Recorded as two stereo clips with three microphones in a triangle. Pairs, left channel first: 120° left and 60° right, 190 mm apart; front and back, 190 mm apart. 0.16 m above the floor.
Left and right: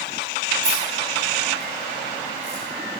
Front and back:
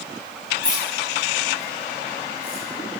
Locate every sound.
0.6 s keys jangling: 135° left, 7 m; by 2.6 s 145° left, 6.5 m